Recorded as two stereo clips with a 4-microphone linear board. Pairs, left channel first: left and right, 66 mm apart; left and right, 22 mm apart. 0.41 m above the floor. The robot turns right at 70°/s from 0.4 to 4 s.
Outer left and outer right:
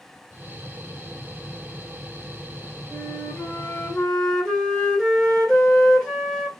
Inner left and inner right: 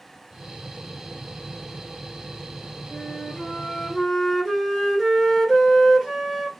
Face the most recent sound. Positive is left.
turn(degrees=165)